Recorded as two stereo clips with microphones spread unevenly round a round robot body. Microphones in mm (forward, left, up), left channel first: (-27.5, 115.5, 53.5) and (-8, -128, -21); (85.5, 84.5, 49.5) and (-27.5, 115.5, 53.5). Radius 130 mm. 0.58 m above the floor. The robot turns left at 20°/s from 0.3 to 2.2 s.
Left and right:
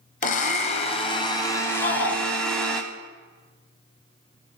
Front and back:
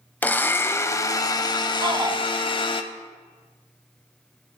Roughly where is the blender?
Ahead left.